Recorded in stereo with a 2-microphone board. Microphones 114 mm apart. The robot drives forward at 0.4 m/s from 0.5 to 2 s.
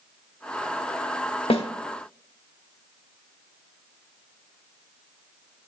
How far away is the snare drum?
About 0.9 m.